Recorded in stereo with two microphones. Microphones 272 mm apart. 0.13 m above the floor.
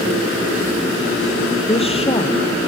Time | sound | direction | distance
1.7 | a woman speaking | 20° left (ahead or behind) | 3 m